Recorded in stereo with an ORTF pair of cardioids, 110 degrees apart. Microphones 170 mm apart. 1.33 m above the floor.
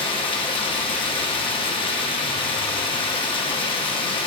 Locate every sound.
0.0 s running water: 30° left, 0.9 m